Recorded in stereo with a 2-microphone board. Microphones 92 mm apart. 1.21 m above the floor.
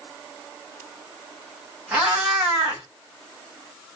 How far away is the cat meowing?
About 1.8 m.